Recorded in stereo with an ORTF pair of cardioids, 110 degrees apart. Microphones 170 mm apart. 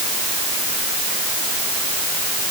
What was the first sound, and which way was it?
Only background noise.